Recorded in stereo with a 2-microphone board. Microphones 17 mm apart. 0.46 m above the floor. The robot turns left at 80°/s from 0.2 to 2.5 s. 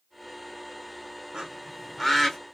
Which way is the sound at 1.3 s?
50° right (ahead or behind).